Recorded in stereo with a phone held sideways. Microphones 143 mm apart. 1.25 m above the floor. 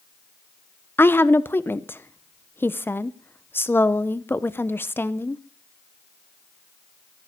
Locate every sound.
1.0 s a woman speaking: 15° left (ahead or behind), 0.7 m